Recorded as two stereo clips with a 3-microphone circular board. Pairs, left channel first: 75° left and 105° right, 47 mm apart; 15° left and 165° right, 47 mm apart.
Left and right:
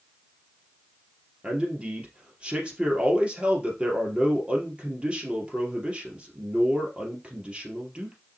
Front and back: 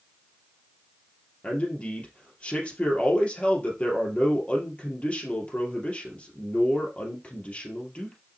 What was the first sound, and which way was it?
A man speaking, 45° right.